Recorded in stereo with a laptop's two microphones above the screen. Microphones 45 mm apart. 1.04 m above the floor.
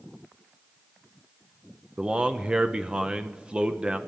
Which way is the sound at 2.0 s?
20° right (ahead or behind).